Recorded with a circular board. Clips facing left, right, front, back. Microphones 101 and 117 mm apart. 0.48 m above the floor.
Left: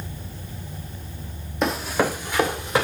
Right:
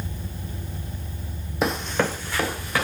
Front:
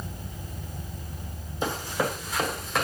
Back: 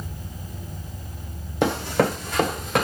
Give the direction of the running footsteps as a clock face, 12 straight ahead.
6 o'clock.